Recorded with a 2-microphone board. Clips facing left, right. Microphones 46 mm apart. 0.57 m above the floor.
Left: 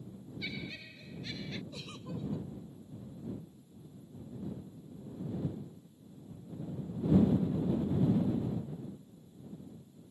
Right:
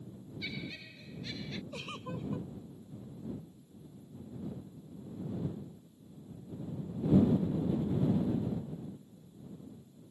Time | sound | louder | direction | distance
0.4 | laughter | even | 5° left (ahead or behind) | ?
1.7 | a giggle | right 2 dB | 40° right (ahead or behind) | ?